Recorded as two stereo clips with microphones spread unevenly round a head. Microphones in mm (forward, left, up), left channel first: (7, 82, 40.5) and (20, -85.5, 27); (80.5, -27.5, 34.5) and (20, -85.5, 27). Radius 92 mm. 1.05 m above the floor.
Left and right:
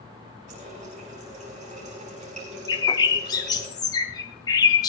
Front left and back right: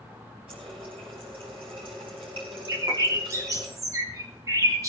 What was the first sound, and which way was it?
A running tap, 140° right.